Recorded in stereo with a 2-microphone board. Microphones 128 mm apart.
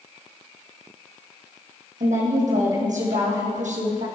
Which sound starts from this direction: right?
A woman speaking, at 2.0 s.